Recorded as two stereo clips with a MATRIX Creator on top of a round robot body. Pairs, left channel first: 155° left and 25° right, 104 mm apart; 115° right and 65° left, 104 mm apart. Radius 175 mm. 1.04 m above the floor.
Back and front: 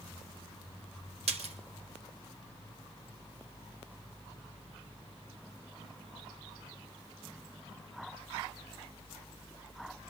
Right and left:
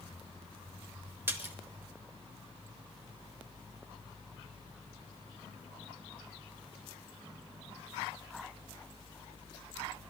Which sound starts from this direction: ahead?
A splash, at 1.3 s.